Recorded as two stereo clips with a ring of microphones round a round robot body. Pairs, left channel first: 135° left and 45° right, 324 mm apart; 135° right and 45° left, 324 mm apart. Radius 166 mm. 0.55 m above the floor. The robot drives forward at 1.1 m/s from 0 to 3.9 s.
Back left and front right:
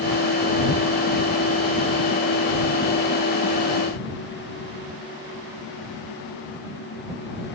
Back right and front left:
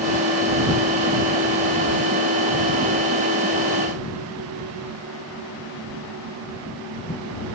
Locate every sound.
Only background noise.